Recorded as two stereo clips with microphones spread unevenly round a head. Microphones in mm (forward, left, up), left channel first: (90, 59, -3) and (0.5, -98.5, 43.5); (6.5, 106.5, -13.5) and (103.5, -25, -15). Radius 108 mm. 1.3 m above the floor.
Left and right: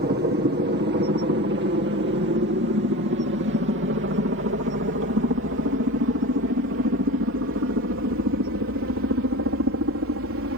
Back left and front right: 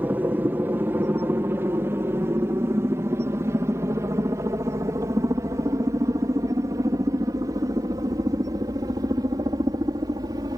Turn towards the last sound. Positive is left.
turn(degrees=-125)